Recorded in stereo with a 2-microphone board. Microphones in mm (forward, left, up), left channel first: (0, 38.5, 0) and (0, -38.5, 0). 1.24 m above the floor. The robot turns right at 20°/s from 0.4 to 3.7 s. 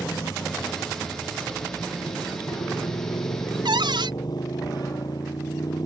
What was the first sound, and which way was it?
A motorcycle, 55° left.